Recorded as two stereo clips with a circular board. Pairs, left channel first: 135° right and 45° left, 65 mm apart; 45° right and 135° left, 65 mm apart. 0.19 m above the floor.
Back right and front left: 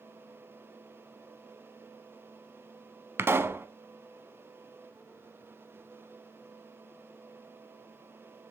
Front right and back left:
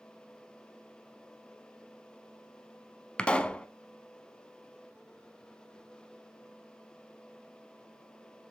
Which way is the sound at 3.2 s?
20° left.